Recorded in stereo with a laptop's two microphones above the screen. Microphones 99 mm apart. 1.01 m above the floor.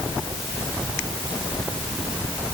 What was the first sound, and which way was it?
Only background noise.